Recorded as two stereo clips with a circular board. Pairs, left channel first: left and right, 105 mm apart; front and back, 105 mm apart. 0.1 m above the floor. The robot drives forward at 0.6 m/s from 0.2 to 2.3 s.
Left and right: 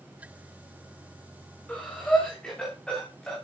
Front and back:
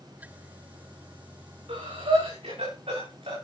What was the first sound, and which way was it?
Breathing, 170° left.